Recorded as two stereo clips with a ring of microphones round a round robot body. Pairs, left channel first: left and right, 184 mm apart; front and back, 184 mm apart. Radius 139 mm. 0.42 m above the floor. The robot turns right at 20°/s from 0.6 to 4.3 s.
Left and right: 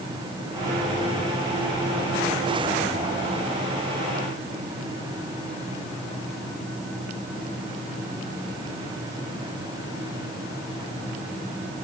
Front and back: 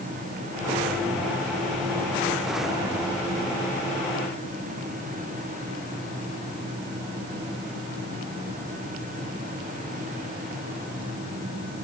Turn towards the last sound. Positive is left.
No sound to turn to.